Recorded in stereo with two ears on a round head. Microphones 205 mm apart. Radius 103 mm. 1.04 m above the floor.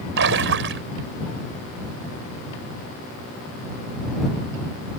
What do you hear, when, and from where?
0.2 s a splash: 55° right (ahead or behind)